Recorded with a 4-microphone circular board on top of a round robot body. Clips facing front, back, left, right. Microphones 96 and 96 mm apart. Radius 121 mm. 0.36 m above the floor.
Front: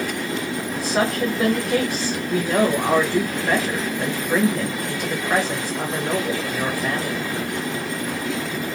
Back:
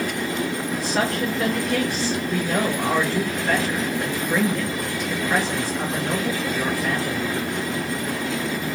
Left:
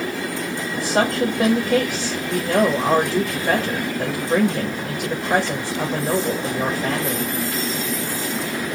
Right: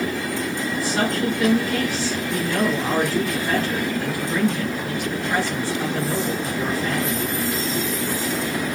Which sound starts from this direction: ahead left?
A woman speaking, at 0.7 s.